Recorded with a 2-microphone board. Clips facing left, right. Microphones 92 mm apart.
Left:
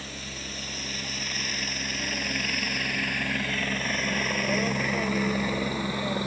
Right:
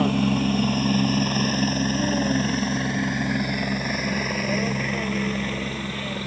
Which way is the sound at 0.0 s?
60° right (ahead or behind).